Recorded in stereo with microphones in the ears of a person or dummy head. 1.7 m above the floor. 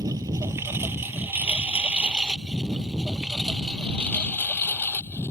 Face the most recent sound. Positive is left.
turn(degrees=15)  # may be behind; listen again after turning